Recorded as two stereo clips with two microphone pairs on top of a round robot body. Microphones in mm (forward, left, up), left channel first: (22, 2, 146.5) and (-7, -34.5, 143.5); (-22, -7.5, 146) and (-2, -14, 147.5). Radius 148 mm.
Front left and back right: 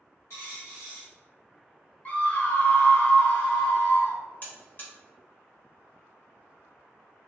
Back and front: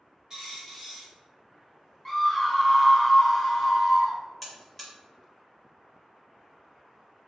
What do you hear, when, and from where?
0.3 s a dropped coin: 50° left, 0.6 m
2.0 s a scream: 100° left, 1.0 m
4.4 s a buzzer: 95° left, 1.1 m